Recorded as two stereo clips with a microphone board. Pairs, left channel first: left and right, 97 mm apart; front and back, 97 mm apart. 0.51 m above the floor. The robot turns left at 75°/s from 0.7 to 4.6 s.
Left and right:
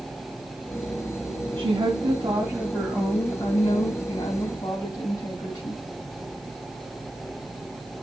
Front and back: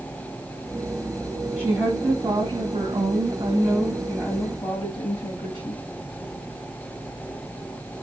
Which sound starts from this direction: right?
A woman speaking, at 1.6 s.